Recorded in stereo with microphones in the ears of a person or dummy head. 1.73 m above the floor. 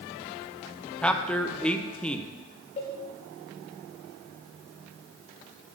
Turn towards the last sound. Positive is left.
turn(degrees=30)  # may be behind; listen again after turning